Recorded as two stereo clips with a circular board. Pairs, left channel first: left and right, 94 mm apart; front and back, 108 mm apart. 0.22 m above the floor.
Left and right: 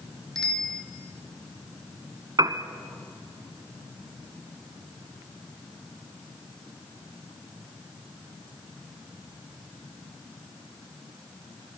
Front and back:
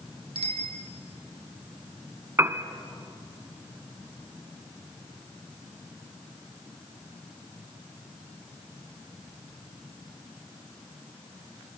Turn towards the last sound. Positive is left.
turn(degrees=-120)